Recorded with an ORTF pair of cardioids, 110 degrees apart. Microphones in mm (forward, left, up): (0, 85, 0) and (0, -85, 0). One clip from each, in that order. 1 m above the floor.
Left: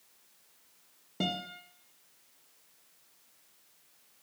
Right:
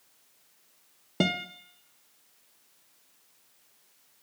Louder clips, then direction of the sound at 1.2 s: Right 6 dB; 45° right.